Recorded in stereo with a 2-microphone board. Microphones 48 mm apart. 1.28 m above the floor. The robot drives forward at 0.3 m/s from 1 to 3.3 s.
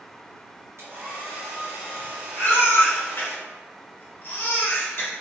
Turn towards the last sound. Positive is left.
turn(degrees=50)  # may be behind; listen again after turning